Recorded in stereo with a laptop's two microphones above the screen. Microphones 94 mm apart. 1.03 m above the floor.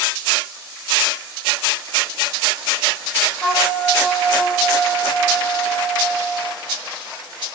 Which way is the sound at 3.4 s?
15° left (ahead or behind).